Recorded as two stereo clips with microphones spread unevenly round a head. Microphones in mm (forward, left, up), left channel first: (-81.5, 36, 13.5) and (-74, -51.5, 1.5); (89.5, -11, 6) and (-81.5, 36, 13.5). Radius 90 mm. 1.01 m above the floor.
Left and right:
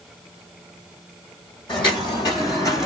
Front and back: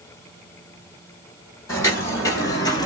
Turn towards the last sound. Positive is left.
turn(degrees=45)